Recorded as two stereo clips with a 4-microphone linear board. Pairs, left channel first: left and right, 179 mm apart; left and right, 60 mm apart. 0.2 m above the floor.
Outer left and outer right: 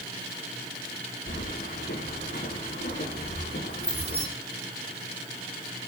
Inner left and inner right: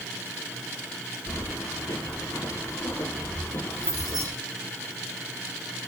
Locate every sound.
1.3 s keys jangling: 75° left (ahead or behind), 9 m